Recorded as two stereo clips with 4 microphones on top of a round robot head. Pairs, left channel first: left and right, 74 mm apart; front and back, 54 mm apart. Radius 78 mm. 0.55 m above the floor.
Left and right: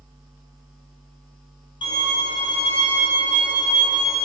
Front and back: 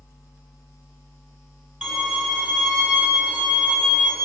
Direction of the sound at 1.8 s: 100° left.